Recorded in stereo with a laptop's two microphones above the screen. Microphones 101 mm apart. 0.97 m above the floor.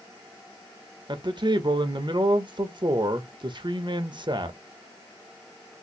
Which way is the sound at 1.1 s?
50° right (ahead or behind).